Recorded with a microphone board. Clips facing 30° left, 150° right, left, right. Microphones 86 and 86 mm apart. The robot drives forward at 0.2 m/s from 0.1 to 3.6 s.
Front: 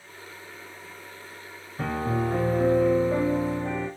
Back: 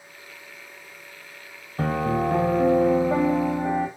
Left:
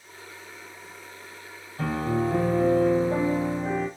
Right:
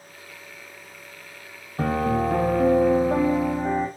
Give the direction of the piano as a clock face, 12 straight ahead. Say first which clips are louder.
Back 4 dB, right 3 dB; 4 o'clock.